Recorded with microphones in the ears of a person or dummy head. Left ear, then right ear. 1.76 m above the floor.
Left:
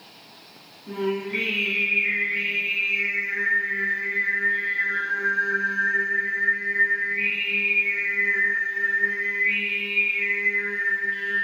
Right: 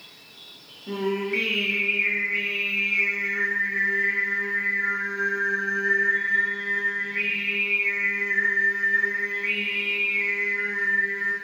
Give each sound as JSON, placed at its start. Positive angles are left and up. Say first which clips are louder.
{"t": 0.9, "sound": "singing", "louder": "even", "side_deg": -30, "distance_m": 1.2}